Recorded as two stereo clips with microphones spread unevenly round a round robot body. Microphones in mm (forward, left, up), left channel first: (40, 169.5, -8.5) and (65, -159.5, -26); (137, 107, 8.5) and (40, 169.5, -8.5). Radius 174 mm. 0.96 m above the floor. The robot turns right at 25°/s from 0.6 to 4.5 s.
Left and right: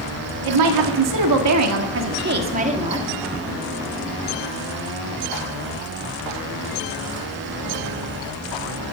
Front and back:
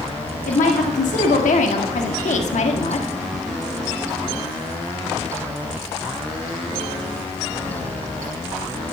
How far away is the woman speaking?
About 1.7 m.